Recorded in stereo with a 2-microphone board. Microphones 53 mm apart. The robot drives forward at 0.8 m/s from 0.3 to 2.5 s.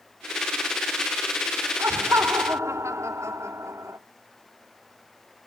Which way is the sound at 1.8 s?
75° right (ahead or behind).